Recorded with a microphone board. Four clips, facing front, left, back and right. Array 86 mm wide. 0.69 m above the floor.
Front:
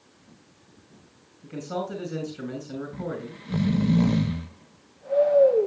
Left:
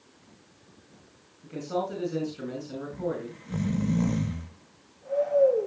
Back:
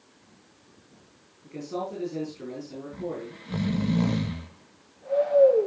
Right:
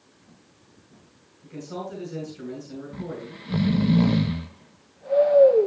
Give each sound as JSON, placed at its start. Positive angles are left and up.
{"t": 1.4, "sound": "a man speaking", "azimuth_deg": 25, "distance_m": 6.5}
{"t": 2.9, "sound": "snoring", "azimuth_deg": -85, "distance_m": 0.8}